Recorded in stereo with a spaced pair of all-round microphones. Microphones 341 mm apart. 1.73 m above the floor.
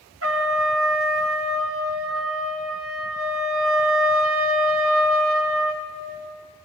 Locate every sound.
0.2 s a trumpet: 40° right (ahead or behind), 0.8 m